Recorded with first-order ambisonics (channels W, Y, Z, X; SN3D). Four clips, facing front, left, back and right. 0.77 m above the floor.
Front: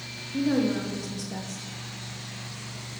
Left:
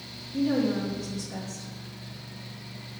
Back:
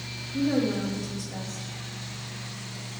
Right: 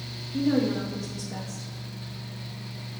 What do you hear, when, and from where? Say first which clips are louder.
0.3 s a woman speaking: right 1 dB, front 1 dB; 15° right, 0.6 m